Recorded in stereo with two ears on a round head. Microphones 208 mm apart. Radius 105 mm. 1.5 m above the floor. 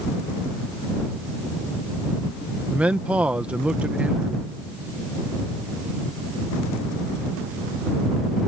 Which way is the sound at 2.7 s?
5° right (ahead or behind).